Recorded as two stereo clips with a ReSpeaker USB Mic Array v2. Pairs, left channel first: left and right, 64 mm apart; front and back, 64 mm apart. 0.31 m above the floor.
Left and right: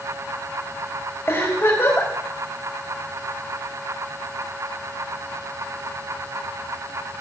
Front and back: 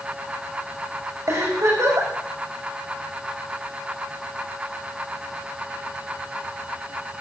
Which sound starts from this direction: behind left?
A giggle, at 1.3 s.